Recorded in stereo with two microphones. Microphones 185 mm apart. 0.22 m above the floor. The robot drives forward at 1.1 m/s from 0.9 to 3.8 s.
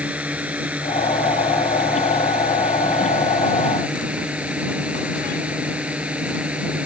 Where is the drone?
5° right (ahead or behind).